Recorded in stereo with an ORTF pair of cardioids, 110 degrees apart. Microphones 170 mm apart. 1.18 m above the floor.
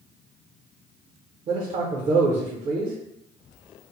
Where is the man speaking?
40° right, 0.5 m.